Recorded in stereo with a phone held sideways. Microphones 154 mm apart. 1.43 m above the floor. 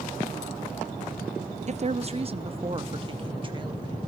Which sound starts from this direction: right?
A woman speaking, at 1.7 s.